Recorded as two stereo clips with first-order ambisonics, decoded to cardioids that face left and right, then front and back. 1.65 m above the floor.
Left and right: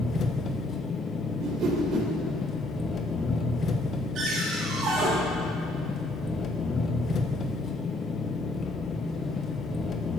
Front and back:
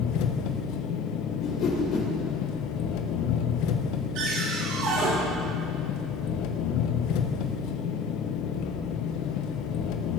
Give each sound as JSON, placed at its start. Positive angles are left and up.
{"t": 0.0, "sound": "an engine running", "azimuth_deg": 25, "distance_m": 1.2}
{"t": 1.4, "sound": "a whoosh", "azimuth_deg": -45, "distance_m": 3.5}
{"t": 4.2, "sound": "a cupboard door", "azimuth_deg": -145, "distance_m": 8.0}